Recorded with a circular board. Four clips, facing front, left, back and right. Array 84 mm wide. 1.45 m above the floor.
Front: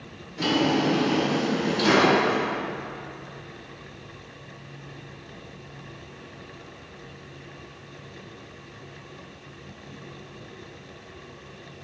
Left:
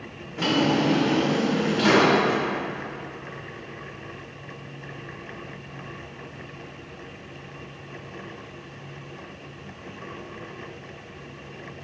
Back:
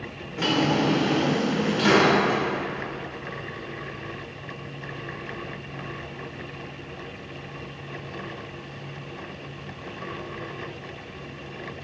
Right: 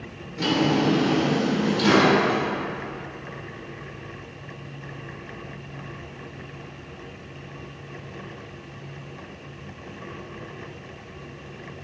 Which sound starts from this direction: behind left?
A drawer, at 0.4 s.